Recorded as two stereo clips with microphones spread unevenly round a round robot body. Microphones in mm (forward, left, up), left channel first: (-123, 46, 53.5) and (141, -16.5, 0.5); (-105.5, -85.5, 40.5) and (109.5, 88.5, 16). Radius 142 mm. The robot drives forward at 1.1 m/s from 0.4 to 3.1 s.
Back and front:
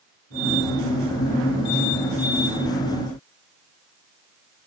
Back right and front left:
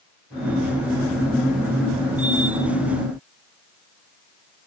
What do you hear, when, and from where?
Only background noise.